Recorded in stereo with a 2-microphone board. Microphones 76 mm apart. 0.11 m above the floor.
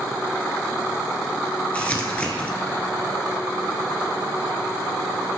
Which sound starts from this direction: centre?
Crumpling, at 1.7 s.